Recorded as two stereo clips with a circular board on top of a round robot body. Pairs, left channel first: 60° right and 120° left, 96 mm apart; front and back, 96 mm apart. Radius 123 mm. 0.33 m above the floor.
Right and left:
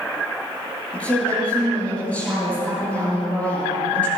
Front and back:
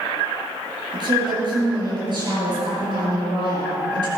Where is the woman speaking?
135° right, 6.5 m.